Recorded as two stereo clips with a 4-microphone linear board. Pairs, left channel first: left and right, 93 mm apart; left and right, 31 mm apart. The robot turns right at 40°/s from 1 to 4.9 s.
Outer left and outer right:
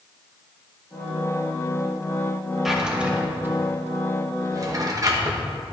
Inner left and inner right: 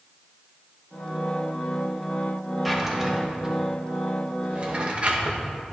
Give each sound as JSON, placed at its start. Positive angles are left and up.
{"t": 2.6, "sound": "a drawer", "side_deg": -5, "distance_m": 0.9}